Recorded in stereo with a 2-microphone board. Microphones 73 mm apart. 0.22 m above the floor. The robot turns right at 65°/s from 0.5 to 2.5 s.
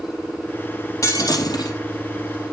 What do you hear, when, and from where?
1.0 s breaking glass: 50° left, 3.5 m; by 1.8 s 100° left, 3.5 m